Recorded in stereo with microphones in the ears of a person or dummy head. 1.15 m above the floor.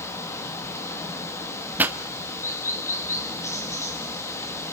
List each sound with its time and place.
0.0 s running water: 15° left (ahead or behind), 1.6 m
1.8 s a pop: 10° right (ahead or behind), 0.9 m